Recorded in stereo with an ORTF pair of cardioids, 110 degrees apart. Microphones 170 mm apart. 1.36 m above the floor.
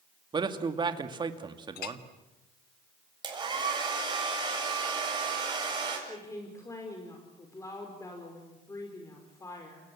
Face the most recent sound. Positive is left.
turn(degrees=20)